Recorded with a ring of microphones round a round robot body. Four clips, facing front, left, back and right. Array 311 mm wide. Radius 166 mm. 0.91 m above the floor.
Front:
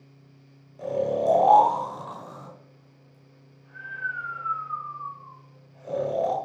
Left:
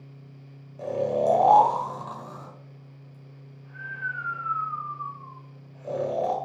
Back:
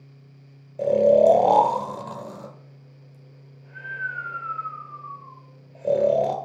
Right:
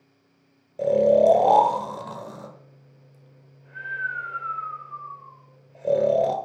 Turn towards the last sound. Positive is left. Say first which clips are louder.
# right 8 dB, back 9 dB
turn(degrees=-140)